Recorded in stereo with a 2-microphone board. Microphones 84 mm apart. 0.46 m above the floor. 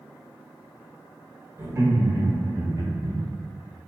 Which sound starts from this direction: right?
Laughter, at 1.6 s.